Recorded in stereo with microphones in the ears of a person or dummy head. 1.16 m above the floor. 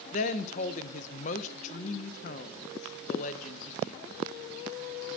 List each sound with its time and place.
0.1 s a woman speaking: 40° left (ahead or behind), 0.6 m